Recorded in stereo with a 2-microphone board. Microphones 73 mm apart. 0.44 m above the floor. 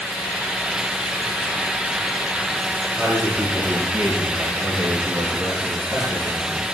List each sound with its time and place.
3.0 s a man speaking: 35° right (ahead or behind), 8 m; by 6.7 s 50° right (ahead or behind), 5.5 m